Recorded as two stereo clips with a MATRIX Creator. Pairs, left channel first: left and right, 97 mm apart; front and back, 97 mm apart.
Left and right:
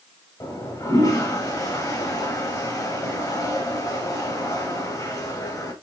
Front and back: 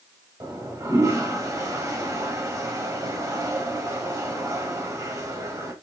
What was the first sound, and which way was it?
A toilet flushing, 130° left.